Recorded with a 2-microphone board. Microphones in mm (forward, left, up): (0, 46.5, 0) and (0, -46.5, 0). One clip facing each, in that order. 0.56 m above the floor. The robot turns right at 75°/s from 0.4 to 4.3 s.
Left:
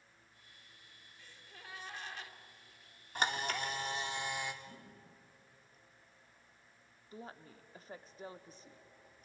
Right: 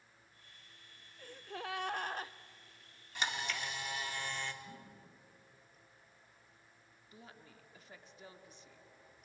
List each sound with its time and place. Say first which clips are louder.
1.2 s a gasp: right 13 dB; 120° right, 0.5 m; by 2.3 s 35° right, 0.5 m
3.1 s a camera shutter: left 4 dB; 75° left, 1.4 m; by 4.5 s 160° left, 1.4 m
4.6 s a whoosh: right 1 dB; 40° right (ahead or behind), 8 m
7.1 s a woman speaking: left 7 dB; 40° left (ahead or behind), 0.8 m